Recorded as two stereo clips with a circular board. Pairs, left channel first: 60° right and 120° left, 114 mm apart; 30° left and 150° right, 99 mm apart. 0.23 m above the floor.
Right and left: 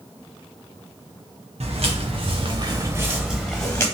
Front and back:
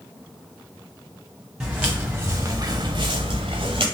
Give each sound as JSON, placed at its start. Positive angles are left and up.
{"t": 1.6, "sound": "footsteps", "azimuth_deg": 125, "distance_m": 1.7}